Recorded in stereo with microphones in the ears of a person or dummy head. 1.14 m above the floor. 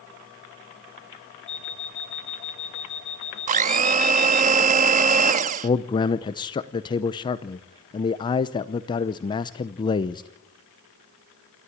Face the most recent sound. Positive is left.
turn(degrees=20)  # may be behind; listen again after turning